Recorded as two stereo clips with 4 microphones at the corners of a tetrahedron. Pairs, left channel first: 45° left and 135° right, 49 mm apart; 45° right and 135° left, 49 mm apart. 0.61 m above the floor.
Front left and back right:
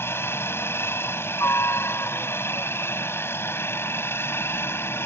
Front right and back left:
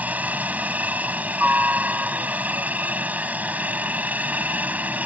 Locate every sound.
0.0 s a helicopter: 80° left